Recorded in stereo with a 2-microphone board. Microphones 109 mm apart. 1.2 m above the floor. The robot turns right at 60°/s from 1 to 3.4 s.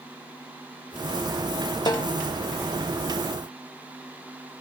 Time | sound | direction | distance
1.9 | a snare drum | 40° left (ahead or behind) | 0.6 m